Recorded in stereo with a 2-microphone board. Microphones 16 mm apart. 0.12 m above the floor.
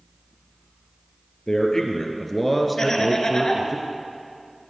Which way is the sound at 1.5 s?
40° left (ahead or behind).